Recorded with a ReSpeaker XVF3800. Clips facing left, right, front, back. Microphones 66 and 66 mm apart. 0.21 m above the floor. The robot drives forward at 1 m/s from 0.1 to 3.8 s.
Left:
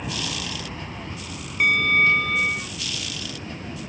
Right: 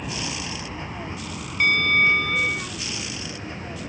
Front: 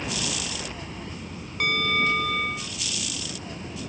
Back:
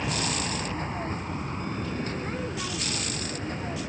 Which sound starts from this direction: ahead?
A bell, at 1.6 s.